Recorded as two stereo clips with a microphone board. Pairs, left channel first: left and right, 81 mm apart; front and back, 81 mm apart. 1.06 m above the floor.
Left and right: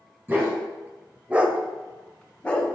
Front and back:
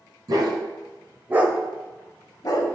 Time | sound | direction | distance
0.3 | a dog barking | 150° right | 2.0 m